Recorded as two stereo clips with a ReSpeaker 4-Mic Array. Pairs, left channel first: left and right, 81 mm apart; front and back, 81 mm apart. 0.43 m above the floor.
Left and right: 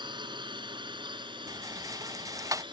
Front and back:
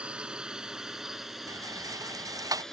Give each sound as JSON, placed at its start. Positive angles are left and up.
{"t": 0.0, "sound": "a drone", "azimuth_deg": -105}
{"t": 1.5, "sound": "a rattle", "azimuth_deg": -140}